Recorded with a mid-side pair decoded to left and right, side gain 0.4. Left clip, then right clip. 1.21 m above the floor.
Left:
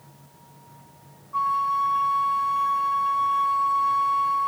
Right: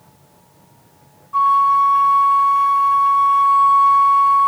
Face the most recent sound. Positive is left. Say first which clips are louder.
# right 10 dB
turn(degrees=-40)